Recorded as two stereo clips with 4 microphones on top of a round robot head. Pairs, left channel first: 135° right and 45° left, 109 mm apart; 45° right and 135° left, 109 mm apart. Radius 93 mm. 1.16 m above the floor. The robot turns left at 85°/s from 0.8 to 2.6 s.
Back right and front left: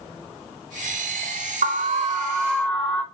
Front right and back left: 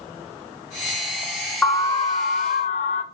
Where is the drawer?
No drawer in this recording.